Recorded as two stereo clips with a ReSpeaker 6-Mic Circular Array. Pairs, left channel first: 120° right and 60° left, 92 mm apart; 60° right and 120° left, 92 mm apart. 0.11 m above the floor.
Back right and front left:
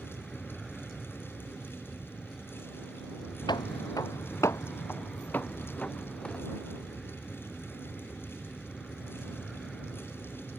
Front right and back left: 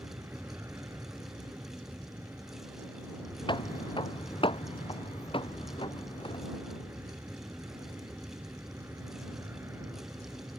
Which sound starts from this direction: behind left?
An aircraft, at 0.0 s.